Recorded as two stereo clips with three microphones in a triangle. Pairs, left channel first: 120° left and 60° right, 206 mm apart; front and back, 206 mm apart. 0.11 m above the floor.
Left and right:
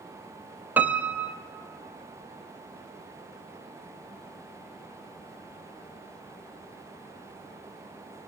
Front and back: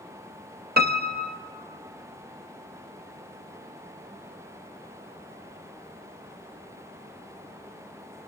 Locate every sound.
0.8 s a piano: 140° right, 0.6 m